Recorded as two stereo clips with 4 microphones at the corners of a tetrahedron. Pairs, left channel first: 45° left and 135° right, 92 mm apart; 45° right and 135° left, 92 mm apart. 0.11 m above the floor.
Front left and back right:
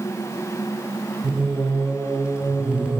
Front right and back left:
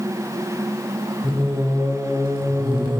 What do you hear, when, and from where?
1.2 s singing: 150° left, 1.3 m